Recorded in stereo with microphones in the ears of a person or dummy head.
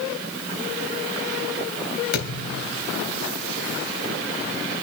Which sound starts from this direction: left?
A thud, at 2.1 s.